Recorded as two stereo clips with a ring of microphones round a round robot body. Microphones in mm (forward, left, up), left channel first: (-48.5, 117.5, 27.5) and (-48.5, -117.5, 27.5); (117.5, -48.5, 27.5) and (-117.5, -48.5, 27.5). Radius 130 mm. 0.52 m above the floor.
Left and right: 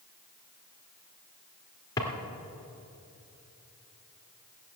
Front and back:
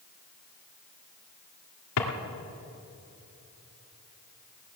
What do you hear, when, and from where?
2.0 s a drawer: 15° left, 2.0 m